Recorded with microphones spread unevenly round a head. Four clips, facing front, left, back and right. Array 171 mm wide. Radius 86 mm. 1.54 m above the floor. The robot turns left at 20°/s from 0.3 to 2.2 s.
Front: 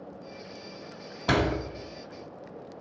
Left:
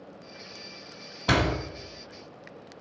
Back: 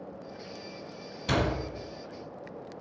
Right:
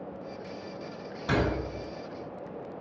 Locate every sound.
1.3 s a door slam: 35° left, 2.0 m; by 1.6 s 30° left, 2.0 m